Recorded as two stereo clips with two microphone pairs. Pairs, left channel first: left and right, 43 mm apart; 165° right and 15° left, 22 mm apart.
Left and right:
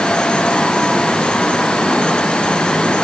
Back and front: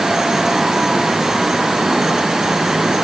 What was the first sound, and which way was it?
Only background noise.